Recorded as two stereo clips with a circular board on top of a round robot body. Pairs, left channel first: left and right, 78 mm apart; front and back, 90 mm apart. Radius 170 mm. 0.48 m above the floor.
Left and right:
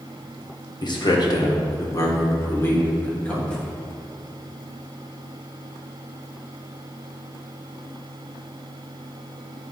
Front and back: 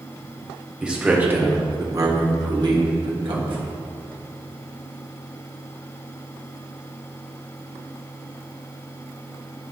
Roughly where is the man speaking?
Left.